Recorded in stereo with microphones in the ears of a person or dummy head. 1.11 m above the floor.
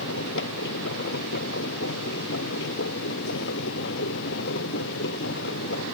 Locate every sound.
0.0 s a machine running: 70° left (ahead or behind)